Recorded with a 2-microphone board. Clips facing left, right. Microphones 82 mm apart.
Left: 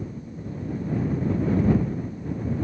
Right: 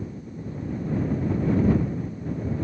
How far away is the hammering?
I don't hear hammering.